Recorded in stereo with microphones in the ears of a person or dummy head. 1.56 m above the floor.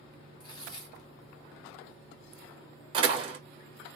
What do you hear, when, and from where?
0.4 s tearing paper: 30° left (ahead or behind), 1.0 m
2.9 s a door slam: 30° right (ahead or behind), 0.8 m